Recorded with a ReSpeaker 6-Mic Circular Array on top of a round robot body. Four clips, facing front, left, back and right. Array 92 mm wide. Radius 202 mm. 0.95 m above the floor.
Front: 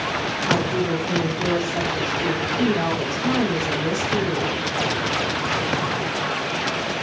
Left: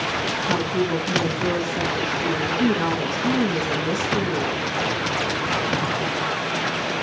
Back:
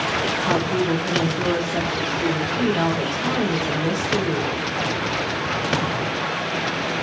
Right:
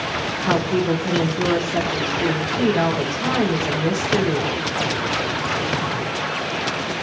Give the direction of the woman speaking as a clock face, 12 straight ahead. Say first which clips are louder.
Right 4 dB, even; 4 o'clock.